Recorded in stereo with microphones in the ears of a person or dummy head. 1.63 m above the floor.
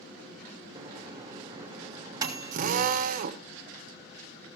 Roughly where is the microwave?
Right.